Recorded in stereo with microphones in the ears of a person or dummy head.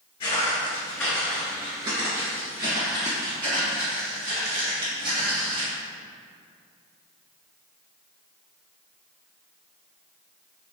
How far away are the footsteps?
About 1.4 m.